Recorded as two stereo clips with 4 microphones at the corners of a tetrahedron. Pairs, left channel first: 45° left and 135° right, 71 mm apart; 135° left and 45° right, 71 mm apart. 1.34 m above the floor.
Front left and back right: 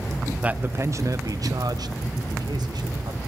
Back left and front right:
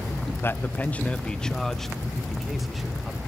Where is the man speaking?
165° left, 0.5 m; by 3.2 s 130° right, 1.8 m.